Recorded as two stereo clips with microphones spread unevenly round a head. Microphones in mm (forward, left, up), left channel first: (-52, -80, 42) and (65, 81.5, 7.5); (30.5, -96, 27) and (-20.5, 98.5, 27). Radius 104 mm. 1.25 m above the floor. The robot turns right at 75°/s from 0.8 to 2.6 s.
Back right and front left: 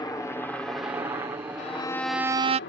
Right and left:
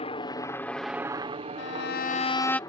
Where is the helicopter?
55° right; by 2.7 s 145° right.